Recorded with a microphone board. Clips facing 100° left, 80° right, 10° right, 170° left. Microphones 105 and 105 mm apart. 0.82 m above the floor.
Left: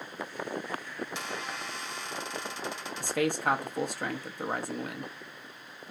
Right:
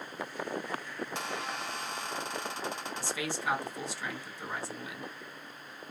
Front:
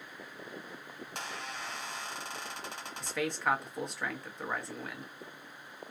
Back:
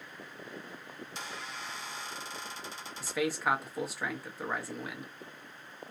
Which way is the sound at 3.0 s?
85° left.